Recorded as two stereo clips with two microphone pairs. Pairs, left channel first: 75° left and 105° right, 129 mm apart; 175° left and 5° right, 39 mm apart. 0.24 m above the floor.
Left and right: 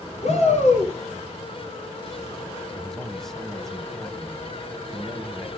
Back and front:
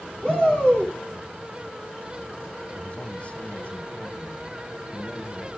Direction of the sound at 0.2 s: 105° left.